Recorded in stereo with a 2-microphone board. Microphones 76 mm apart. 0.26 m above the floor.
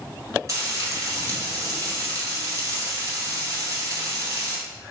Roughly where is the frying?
Right.